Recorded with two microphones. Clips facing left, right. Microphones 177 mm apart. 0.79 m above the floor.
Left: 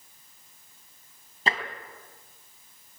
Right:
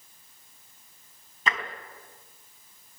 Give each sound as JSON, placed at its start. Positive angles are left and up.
{"t": 1.5, "sound": "tapping", "side_deg": 30, "distance_m": 3.5}